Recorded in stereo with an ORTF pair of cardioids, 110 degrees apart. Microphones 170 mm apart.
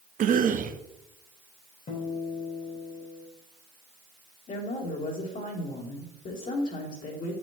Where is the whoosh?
I don't hear a whoosh.